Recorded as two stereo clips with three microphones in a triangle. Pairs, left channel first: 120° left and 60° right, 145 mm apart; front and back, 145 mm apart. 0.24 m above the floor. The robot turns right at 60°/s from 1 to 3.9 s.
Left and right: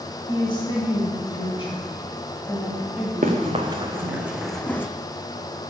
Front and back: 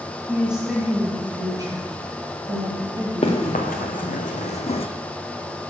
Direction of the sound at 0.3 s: 100° left.